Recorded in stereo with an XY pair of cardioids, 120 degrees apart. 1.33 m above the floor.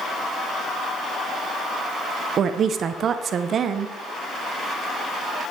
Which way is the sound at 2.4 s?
45° right.